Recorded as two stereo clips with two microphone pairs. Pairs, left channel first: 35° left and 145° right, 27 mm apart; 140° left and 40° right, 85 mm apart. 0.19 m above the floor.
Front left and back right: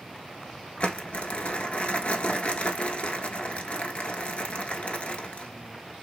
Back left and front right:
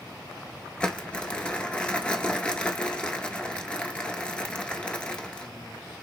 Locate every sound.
0.8 s crumpling: 65° left, 0.5 m